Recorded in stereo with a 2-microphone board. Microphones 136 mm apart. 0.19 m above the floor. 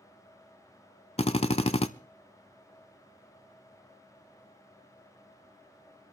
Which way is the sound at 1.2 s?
50° left (ahead or behind).